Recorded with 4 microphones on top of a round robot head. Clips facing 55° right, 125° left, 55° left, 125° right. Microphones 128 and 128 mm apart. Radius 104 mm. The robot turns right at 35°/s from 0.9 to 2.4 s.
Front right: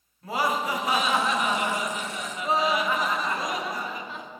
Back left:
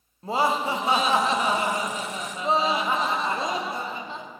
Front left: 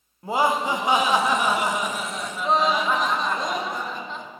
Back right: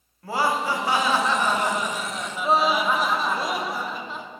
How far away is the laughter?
About 0.8 m.